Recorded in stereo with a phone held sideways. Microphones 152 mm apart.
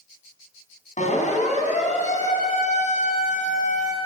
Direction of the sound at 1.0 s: 55° left (ahead or behind).